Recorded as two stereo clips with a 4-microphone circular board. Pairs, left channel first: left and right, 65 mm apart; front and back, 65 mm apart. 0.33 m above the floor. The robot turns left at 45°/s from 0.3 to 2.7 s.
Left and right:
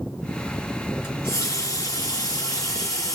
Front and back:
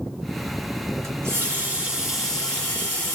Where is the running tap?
140° left, 3.5 m; by 3.1 s 65° left, 3.5 m.